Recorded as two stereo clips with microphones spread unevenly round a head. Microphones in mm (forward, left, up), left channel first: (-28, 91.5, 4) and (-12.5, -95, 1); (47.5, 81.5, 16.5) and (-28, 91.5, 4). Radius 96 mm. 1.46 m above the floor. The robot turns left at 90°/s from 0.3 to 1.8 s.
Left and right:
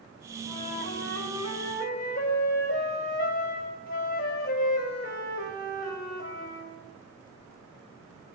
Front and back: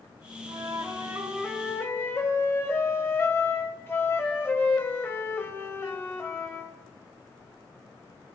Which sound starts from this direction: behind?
A flute, at 0.4 s.